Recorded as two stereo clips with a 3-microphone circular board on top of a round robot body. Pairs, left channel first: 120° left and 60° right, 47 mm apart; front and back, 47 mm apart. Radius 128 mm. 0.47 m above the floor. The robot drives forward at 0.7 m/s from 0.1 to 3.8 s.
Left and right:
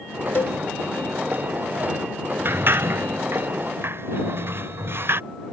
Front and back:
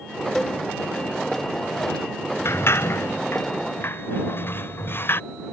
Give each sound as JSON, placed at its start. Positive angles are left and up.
{"t": 0.3, "sound": "a cowbell", "azimuth_deg": 85}
{"t": 2.5, "sound": "a sliding door", "azimuth_deg": -25}